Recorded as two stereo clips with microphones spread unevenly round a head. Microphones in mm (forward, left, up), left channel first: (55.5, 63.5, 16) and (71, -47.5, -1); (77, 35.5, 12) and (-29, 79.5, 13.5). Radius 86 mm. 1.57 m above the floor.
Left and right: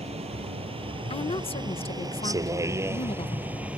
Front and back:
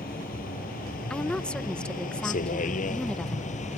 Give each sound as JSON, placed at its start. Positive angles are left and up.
{"t": 0.0, "sound": "a vehicle", "azimuth_deg": -50}
{"t": 1.1, "sound": "a woman speaking", "azimuth_deg": 60}